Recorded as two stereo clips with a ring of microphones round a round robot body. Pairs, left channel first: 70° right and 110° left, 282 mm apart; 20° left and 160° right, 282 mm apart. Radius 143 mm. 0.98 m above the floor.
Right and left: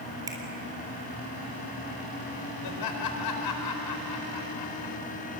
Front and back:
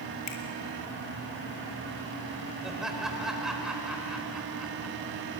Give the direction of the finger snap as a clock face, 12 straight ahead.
11 o'clock.